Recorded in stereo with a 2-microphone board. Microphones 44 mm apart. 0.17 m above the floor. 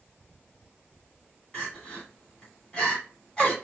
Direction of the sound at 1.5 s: 20° left (ahead or behind).